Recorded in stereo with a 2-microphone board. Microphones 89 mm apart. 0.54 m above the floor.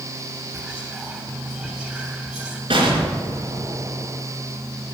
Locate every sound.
0.5 s whispering: centre (ahead or behind), 1.4 m
2.7 s an explosion: 75° right (ahead or behind), 3 m